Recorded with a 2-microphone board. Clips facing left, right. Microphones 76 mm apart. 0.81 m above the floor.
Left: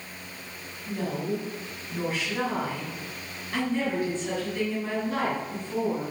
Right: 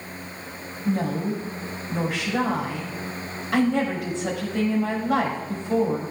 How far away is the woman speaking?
About 5 m.